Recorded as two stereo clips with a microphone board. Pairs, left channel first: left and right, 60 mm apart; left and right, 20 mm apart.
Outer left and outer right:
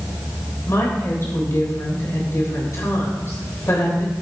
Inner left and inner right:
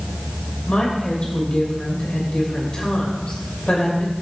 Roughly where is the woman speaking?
Left.